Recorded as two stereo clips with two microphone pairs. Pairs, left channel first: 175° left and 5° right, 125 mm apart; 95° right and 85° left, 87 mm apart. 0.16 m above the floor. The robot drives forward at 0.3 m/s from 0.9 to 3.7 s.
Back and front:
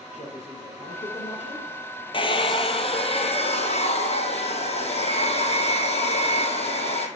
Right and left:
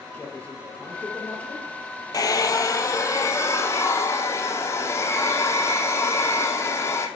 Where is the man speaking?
170° right, 3.5 m.